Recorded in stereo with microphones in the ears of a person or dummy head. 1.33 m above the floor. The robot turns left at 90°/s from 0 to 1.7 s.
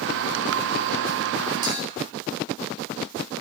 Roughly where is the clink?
Right.